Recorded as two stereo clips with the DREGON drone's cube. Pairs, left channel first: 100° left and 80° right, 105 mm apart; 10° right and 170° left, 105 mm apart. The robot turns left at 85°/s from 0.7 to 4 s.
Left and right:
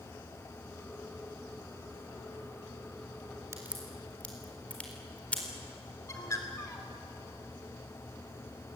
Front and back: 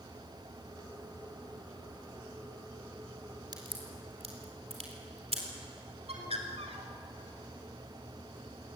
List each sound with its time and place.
3.5 s a crack: 140° right, 4 m; by 5.4 s 175° left, 4 m
6.1 s a bird: 160° left, 3 m